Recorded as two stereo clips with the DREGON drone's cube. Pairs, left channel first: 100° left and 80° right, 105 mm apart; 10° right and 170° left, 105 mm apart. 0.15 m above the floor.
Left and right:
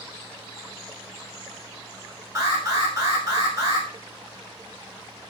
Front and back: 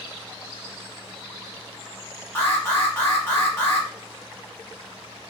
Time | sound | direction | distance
2.4 | an alarm | 60° right | 1.0 m